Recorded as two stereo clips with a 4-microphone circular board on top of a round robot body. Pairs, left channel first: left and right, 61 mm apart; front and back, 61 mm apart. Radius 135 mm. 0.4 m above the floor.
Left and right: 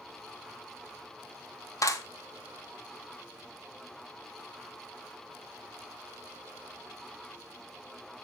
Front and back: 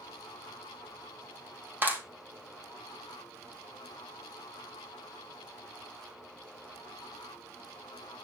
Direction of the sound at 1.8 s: 120° left.